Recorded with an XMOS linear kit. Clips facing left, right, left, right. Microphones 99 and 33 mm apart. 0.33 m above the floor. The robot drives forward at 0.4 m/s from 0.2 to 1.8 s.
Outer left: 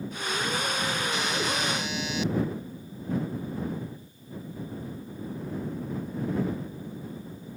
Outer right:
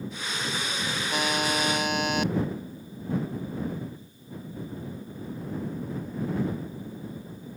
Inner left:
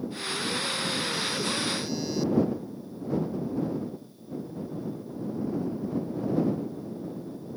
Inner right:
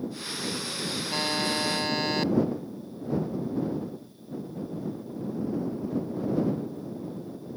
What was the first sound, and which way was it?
A buzzer, 60° right (ahead or behind).